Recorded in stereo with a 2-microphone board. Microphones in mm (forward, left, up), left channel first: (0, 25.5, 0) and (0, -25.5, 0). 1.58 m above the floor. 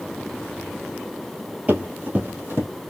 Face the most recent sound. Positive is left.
turn(degrees=-45)  # may be behind; listen again after turning